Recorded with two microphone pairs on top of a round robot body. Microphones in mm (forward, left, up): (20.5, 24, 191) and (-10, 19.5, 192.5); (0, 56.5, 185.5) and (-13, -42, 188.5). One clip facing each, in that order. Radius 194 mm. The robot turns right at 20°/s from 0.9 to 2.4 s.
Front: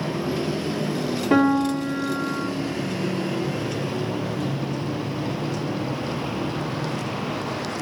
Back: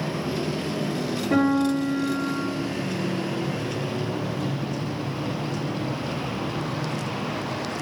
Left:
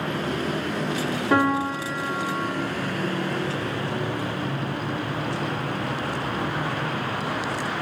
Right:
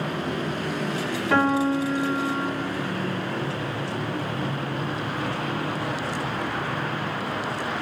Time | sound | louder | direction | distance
1.3 | a piano | front 2 dB, right 1 dB | 10° left | 1.7 m